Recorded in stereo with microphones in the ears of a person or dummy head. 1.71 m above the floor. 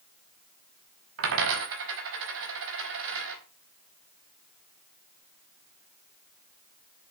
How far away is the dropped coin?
About 4.5 m.